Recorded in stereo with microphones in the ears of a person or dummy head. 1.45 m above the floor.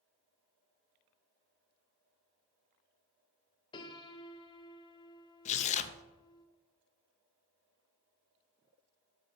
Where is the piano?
25° left (ahead or behind), 0.7 m.